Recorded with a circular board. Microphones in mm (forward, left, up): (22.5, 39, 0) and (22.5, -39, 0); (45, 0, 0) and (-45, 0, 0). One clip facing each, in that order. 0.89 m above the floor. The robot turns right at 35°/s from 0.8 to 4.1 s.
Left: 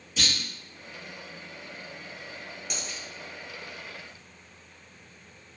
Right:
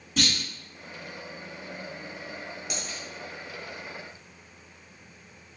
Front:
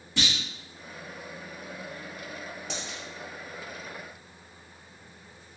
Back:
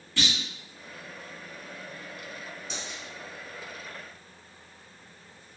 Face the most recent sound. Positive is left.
turn(degrees=45)